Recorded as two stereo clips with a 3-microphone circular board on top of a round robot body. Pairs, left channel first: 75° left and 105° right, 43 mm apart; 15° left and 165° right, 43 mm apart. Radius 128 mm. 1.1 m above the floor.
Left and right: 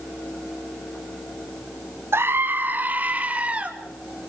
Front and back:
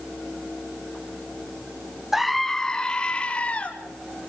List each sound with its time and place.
2.1 s a scream: 85° right, 1.1 m; by 3.7 s 45° right, 3 m